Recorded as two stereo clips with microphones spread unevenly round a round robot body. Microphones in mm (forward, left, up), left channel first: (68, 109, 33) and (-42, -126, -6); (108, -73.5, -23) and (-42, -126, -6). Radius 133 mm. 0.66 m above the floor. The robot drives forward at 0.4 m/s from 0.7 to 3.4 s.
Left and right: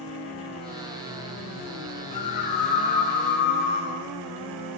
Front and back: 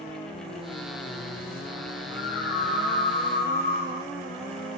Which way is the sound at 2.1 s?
70° left.